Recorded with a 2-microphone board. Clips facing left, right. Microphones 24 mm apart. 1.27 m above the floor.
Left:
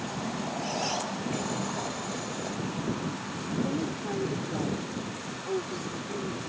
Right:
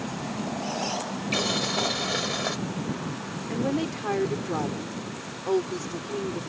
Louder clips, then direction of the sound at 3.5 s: Right 3 dB; 75° right (ahead or behind).